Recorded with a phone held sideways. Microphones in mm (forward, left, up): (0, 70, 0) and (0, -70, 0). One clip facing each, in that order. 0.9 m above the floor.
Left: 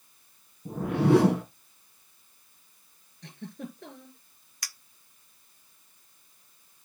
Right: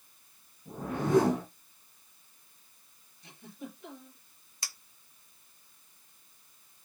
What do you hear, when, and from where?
0.7 s a whoosh: 65° left (ahead or behind), 2.5 m
3.2 s a giggle: 70° left (ahead or behind), 6.5 m
4.6 s a clink: 25° right (ahead or behind), 0.7 m